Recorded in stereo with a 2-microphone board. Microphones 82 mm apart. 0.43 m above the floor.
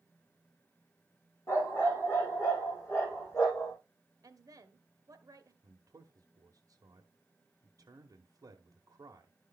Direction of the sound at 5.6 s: 45° right (ahead or behind).